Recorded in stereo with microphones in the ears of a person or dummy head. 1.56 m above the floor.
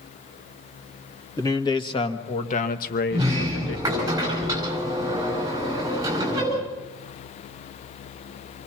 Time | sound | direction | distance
1.4 | a man speaking | 20° left (ahead or behind) | 2.5 m
3.1 | a sliding door | 20° right (ahead or behind) | 8.5 m